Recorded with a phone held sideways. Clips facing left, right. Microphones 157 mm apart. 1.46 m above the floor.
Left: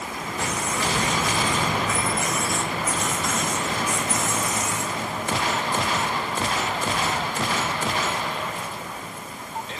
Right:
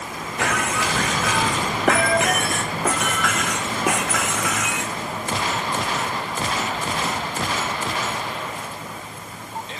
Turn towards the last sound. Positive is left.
turn(degrees=-75)  # may be behind; listen again after turning